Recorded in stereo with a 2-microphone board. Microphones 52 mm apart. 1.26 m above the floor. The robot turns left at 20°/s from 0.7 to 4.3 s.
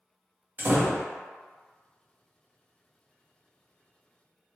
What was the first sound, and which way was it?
A door slam, 40° right (ahead or behind).